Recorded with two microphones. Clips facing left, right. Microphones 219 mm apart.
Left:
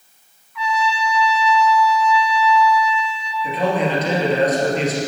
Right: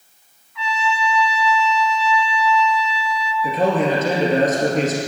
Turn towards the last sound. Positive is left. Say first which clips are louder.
# right 2 dB
turn(degrees=-50)  # may be behind; listen again after turning